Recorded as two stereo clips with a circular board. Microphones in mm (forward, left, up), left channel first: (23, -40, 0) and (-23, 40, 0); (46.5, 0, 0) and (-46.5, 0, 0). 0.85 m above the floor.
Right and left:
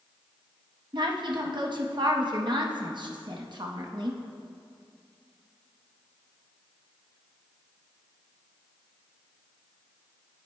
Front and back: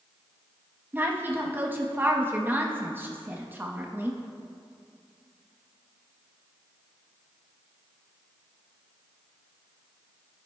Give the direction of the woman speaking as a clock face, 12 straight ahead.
8 o'clock.